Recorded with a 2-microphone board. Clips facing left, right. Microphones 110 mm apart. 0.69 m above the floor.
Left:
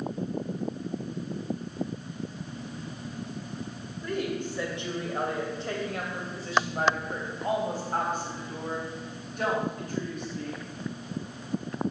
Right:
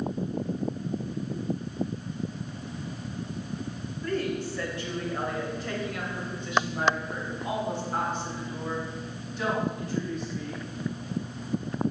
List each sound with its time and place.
4.0 s a woman speaking: 15° left (ahead or behind), 3 m; by 10.6 s 55° left (ahead or behind), 5 m